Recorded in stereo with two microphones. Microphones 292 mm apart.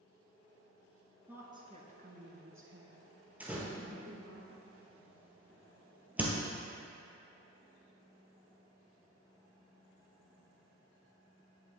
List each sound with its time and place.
1.3 s a woman speaking: 5° right (ahead or behind), 1.2 m; by 4.4 s 55° right (ahead or behind), 3 m
3.4 s a door slam: 5° right (ahead or behind), 1.5 m